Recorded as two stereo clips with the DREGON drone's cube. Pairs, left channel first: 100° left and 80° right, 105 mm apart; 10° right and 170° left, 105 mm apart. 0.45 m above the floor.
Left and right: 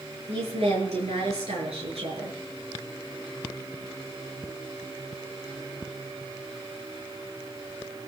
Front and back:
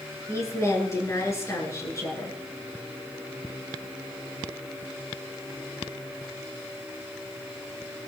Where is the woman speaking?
70° right, 7 m.